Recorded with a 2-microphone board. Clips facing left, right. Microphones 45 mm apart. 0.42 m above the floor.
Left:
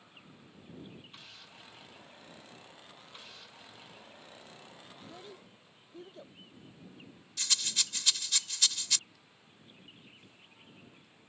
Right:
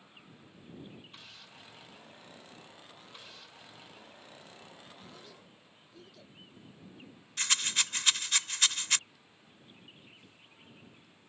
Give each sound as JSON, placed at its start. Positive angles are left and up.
{"t": 5.0, "sound": "a child speaking", "side_deg": 30}
{"t": 7.4, "sound": "a rattle", "side_deg": -45}